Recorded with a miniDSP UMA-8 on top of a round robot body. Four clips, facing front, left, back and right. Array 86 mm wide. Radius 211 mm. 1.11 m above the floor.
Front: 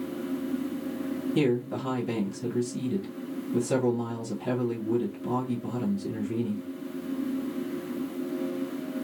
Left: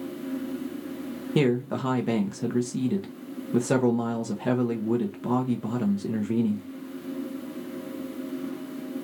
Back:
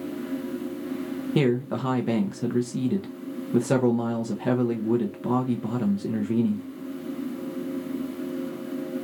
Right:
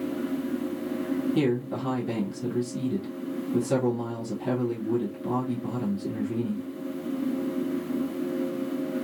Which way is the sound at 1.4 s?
135° left.